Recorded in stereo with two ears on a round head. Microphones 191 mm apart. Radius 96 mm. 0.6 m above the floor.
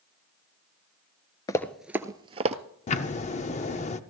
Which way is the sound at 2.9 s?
30° left (ahead or behind).